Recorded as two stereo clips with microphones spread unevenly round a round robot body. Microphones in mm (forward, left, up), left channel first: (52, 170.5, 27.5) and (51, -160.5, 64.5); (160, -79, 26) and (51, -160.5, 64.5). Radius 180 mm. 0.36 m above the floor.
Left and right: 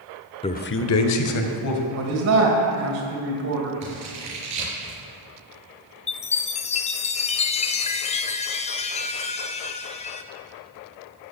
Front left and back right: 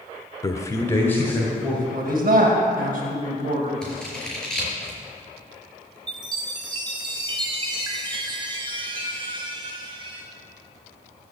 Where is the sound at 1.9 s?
130° right, 2.5 m.